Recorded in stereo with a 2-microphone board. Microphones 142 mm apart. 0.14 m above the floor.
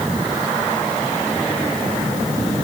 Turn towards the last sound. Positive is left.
No sound to turn to.